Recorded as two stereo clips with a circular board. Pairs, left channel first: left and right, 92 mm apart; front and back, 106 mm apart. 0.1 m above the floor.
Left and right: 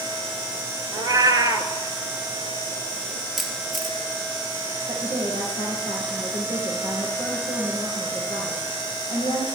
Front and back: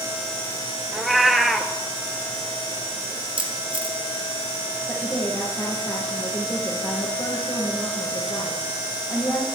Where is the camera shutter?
175° right, 2 m.